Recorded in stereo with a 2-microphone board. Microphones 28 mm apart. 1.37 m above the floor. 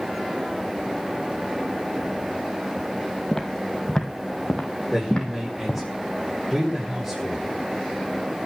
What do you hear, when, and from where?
3.3 s footsteps: 20° left (ahead or behind), 2.5 m; by 5.8 s 35° left (ahead or behind), 4 m
4.9 s a man speaking: centre (ahead or behind), 5.5 m